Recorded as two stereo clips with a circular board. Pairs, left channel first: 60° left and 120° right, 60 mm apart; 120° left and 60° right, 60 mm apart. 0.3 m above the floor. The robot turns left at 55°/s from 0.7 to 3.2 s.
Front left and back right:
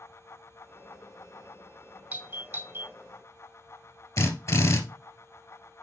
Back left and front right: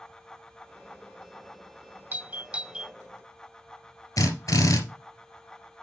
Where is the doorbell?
85° right, 1.6 m; by 2.9 s 130° right, 1.6 m.